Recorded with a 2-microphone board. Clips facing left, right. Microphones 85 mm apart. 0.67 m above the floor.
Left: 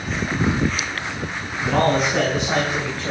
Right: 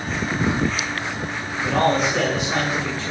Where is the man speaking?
50° left (ahead or behind), 3.5 m; by 3.1 s 55° left (ahead or behind), 2.5 m.